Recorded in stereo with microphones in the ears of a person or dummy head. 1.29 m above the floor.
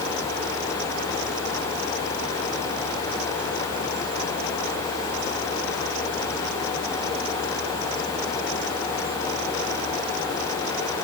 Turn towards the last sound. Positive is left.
No sound to turn to.